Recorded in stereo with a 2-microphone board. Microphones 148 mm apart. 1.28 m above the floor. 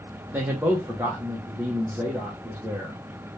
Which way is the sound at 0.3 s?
10° right (ahead or behind).